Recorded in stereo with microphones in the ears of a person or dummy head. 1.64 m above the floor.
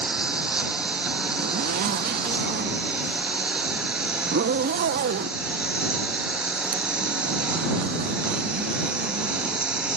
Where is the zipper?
55° right (ahead or behind).